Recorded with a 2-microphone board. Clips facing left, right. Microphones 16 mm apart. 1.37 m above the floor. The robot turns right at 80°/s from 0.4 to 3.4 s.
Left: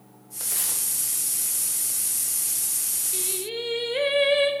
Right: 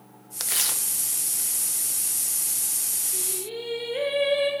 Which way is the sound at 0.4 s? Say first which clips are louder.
Right 3 dB; 60° right (ahead or behind).